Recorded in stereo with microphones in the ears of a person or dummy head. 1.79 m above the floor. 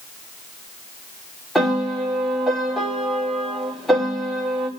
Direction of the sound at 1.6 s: Centre (ahead or behind).